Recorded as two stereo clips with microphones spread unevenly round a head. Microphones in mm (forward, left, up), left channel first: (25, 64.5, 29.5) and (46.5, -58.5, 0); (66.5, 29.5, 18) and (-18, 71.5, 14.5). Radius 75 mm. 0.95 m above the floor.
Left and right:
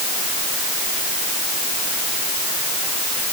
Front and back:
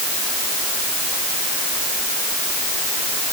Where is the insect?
I don't hear an insect.